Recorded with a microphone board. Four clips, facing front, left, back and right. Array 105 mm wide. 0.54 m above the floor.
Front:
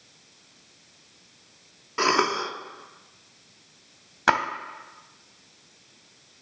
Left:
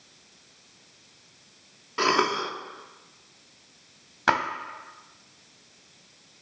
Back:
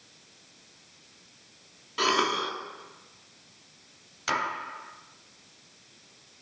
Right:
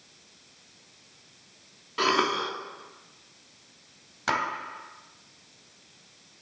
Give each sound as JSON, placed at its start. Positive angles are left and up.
{"t": 2.0, "sound": "a cough", "azimuth_deg": 25, "distance_m": 0.8}
{"t": 4.3, "sound": "a splash", "azimuth_deg": 30, "distance_m": 0.9}